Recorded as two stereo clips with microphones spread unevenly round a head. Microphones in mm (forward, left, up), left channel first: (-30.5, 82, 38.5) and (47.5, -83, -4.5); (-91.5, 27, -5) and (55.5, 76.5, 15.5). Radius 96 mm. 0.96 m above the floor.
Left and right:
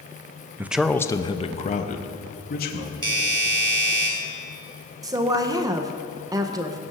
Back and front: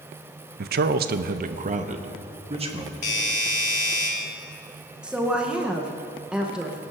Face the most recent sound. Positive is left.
turn(degrees=-75)